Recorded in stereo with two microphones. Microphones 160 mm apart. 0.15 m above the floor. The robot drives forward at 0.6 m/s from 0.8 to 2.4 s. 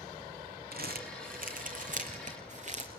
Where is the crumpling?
65° right (ahead or behind), 2 m; by 2.9 s 45° right (ahead or behind), 2.5 m.